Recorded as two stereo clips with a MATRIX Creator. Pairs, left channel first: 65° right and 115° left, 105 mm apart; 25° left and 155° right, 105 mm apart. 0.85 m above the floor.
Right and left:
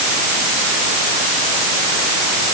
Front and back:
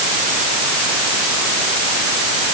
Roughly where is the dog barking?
I don't hear a dog barking.